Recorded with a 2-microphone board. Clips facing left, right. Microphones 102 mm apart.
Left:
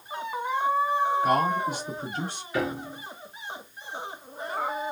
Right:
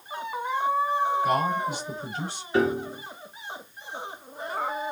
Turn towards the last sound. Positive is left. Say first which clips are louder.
# right 6 dB
turn(degrees=-30)  # may be behind; listen again after turning